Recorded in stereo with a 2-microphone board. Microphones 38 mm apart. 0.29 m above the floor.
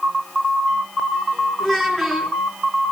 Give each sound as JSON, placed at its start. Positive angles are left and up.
{"t": 1.6, "sound": "a child speaking", "side_deg": 5, "distance_m": 3.0}